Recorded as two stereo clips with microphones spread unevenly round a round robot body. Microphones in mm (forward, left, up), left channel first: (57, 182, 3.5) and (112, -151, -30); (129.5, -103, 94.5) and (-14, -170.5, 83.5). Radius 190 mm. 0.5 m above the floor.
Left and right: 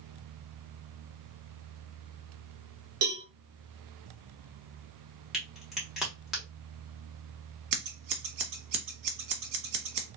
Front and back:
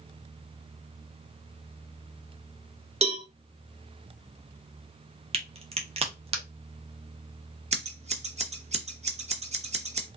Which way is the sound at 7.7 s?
100° right.